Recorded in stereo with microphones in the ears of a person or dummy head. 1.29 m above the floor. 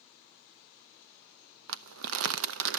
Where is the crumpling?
70° right (ahead or behind), 0.5 m.